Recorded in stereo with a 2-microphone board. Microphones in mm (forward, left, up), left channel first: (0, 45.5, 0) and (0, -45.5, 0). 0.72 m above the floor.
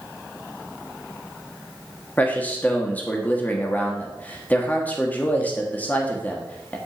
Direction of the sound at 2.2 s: 20° left (ahead or behind).